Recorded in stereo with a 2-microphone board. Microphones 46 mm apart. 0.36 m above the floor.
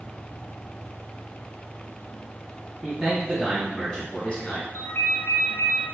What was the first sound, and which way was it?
A man speaking, 5° left (ahead or behind).